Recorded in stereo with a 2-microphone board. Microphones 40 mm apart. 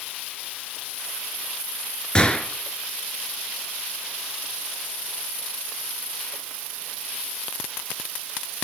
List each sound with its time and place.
2.1 s a gunshot: 25° left (ahead or behind), 0.9 m